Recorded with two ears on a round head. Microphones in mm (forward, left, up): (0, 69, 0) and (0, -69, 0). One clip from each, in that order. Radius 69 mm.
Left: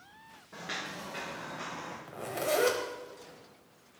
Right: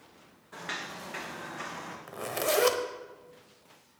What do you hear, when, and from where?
0.5 s footsteps: 40° right (ahead or behind), 2.5 m; by 2.0 s 65° right (ahead or behind), 2.5 m
2.1 s a zipper: 35° right (ahead or behind), 0.9 m